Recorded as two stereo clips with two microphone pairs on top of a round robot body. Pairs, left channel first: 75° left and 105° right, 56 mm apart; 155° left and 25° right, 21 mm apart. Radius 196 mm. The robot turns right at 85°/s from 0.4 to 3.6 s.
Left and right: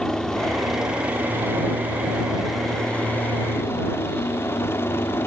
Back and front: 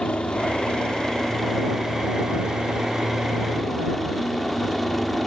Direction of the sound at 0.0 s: 155° left.